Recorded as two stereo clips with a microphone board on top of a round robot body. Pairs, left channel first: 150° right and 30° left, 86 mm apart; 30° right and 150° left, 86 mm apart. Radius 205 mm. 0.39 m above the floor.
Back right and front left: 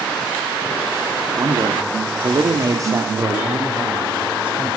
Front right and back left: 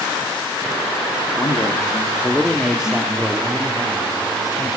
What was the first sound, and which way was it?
A man speaking, 10° left.